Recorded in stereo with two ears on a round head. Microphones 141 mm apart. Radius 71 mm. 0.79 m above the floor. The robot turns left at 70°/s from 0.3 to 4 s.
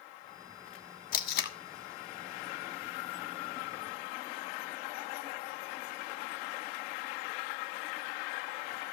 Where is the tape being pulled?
55° left (ahead or behind), 1.4 m; by 1.6 s 70° left (ahead or behind), 1.4 m.